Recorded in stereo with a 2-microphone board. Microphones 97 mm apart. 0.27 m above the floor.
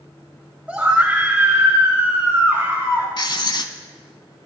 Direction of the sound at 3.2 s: 50° left (ahead or behind).